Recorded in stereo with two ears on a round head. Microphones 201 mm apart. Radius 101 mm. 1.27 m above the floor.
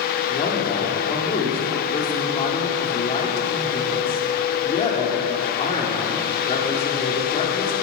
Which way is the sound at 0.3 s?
25° left (ahead or behind).